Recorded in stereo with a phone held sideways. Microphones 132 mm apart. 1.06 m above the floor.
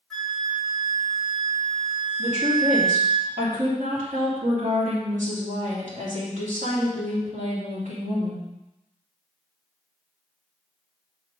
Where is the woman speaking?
75° right (ahead or behind), 3 m.